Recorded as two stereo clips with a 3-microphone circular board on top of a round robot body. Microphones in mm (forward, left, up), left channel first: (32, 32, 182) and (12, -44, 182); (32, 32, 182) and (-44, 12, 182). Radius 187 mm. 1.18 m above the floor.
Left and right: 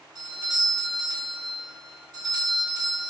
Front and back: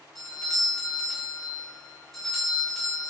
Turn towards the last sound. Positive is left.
turn(degrees=-70)